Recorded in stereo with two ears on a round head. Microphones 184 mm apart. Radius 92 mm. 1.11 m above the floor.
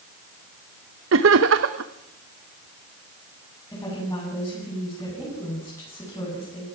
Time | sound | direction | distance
1.1 | laughter | 65° right (ahead or behind) | 1.0 m
3.7 | a woman speaking | 15° left (ahead or behind) | 9 m